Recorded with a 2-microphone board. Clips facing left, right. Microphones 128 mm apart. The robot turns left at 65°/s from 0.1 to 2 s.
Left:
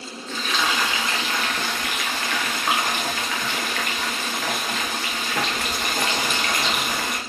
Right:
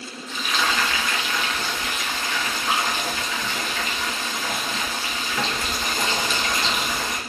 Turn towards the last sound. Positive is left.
turn(degrees=90)